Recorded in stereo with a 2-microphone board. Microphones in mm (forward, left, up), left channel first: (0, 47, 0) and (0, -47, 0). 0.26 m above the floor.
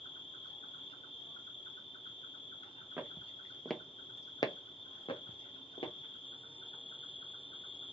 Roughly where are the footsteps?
Centre.